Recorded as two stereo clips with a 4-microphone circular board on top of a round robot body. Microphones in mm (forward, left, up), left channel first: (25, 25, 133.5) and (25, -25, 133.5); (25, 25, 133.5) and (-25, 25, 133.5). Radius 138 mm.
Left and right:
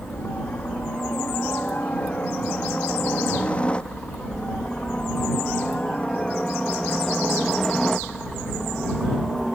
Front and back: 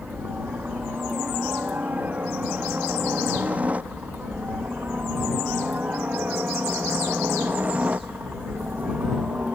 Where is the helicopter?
130° left; by 9.6 s 175° left.